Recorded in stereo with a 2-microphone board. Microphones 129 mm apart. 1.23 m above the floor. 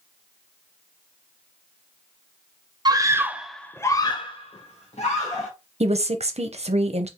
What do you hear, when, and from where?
2.9 s a scream: 35° right (ahead or behind), 0.6 m; by 5.5 s 65° left (ahead or behind), 1.1 m
5.8 s a woman speaking: 55° right (ahead or behind), 0.6 m